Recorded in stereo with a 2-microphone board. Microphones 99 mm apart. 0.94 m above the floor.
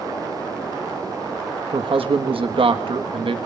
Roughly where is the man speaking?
Right.